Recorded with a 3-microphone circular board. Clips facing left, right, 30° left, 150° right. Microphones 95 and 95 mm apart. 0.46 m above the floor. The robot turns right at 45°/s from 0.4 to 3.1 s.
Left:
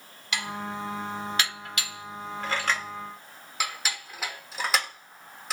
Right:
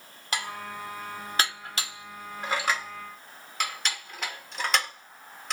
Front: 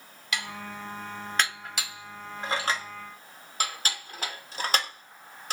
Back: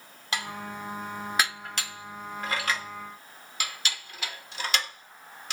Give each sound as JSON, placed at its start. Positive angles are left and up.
{"t": 0.3, "sound": "dishes clattering", "azimuth_deg": -115, "distance_m": 0.7}